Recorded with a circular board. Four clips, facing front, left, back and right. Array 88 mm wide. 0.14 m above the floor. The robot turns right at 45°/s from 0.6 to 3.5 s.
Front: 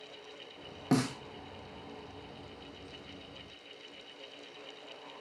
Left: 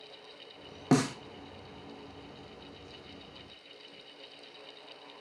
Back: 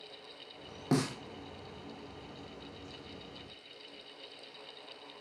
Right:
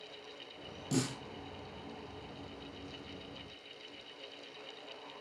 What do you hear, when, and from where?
0.9 s a snare drum: 85° left, 1.5 m; by 1.1 s 95° left, 1.5 m